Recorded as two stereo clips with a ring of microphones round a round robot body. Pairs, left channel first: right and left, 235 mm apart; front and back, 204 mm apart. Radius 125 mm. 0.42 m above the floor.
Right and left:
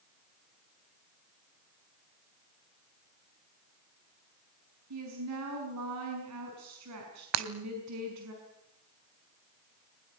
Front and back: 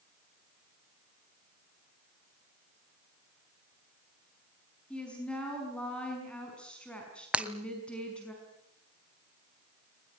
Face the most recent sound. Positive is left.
turn(degrees=95)